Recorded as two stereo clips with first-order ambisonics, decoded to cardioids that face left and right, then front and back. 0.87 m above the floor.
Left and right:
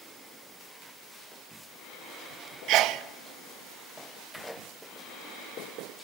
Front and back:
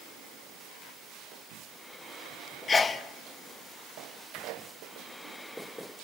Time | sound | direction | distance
2.7 | a sneeze | 70° right | 0.8 m